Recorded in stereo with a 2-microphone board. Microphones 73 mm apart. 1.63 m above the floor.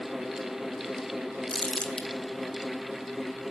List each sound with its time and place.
1.5 s crumpling: 15° left (ahead or behind), 1.1 m